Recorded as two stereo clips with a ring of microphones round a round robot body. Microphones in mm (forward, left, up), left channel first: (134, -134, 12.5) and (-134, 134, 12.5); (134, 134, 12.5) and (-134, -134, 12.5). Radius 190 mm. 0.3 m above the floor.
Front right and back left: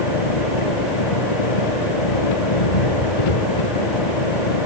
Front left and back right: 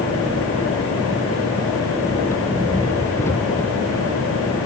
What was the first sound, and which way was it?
An engine running, 40° right.